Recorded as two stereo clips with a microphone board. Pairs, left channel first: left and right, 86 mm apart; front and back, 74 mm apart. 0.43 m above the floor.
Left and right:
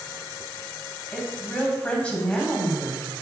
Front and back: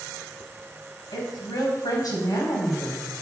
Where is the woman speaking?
15° left, 2.5 m.